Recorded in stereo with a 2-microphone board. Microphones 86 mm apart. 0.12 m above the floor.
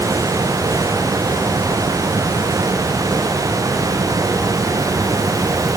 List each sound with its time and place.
Only background noise.